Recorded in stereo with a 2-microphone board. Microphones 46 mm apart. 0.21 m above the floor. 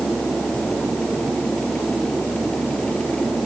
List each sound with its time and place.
Only background noise.